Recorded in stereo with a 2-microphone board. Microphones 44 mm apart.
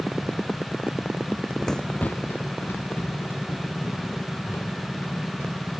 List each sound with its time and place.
1.3 s running footsteps: 30° right (ahead or behind), 0.7 m; by 5.7 s 70° left (ahead or behind), 5.5 m